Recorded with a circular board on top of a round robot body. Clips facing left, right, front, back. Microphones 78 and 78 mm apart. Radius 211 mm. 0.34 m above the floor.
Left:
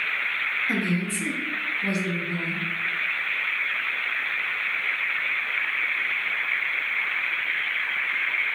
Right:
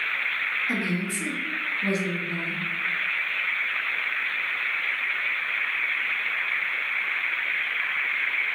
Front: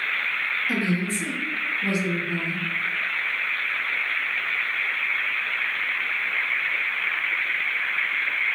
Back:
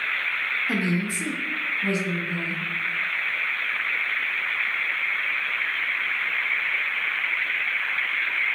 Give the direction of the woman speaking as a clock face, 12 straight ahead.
6 o'clock.